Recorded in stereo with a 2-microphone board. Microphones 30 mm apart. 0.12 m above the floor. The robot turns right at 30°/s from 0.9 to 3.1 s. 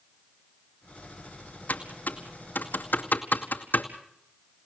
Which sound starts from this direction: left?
Typing on a keyboard, at 1.7 s.